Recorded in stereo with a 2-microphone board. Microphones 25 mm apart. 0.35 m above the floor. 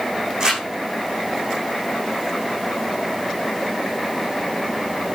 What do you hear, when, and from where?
0.4 s crumpling: 30° right (ahead or behind), 9 m